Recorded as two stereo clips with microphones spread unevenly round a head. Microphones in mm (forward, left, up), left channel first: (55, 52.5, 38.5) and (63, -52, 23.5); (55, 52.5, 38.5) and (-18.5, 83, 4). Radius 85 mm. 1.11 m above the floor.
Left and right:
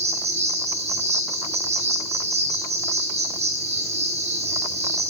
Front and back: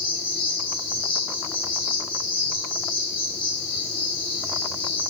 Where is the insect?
80° right, 3 m.